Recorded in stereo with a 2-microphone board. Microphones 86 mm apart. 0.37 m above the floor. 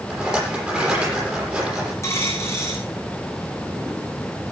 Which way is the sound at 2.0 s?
35° left (ahead or behind).